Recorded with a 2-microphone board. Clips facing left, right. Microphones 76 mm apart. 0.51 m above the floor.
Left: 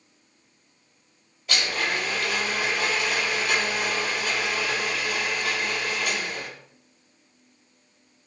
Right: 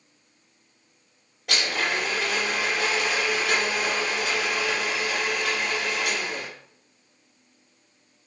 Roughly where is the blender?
Right.